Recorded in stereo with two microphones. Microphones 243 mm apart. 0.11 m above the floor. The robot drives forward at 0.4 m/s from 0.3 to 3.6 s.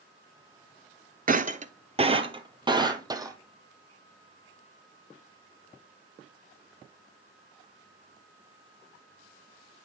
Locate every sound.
1.3 s breaking glass: 35° right (ahead or behind), 0.5 m; by 3.4 s 15° right (ahead or behind), 1.2 m